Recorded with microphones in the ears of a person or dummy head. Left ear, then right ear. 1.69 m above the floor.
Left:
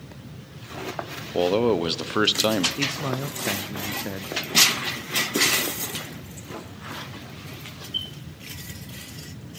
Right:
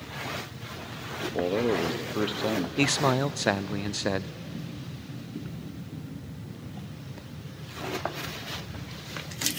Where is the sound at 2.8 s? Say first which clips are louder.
Right 3 dB; 30° right (ahead or behind), 0.6 m.